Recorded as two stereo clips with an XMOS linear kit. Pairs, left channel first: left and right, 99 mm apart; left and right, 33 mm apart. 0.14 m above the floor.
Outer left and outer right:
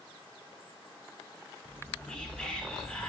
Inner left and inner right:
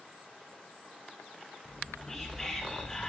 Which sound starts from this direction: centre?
Whispering, at 1.6 s.